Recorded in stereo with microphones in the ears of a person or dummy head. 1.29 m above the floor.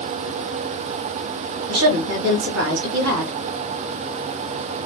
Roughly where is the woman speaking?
Right.